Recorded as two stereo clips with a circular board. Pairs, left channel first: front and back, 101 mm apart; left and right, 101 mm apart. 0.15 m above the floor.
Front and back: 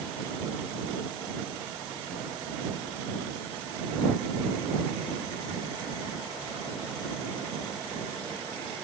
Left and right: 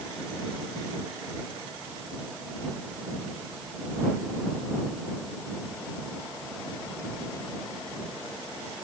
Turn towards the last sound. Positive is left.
No sound to turn to.